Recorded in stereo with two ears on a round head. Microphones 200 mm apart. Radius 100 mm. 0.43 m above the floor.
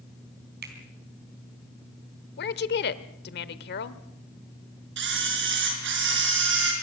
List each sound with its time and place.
0.6 s a finger snap: 45° right (ahead or behind), 3.5 m
2.4 s a woman speaking: 50° left (ahead or behind), 1.1 m
5.0 s a camera shutter: 55° right (ahead or behind), 5.5 m